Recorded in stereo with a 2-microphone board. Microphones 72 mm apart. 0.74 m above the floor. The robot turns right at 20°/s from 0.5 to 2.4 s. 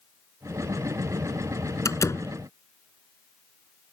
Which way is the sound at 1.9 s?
50° left (ahead or behind).